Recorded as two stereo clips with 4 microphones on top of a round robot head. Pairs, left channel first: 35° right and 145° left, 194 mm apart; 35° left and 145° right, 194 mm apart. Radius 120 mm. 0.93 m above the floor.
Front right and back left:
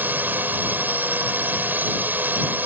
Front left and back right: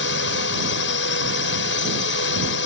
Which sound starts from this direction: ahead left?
A drone, at 0.0 s.